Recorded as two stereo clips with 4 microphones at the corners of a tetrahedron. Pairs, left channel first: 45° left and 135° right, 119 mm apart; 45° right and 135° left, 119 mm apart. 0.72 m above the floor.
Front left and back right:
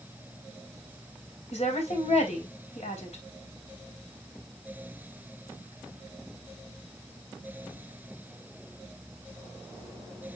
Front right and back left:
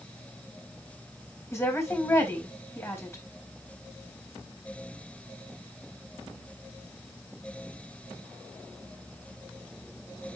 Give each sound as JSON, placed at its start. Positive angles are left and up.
{"t": 1.5, "sound": "a woman speaking", "azimuth_deg": 25, "distance_m": 3.5}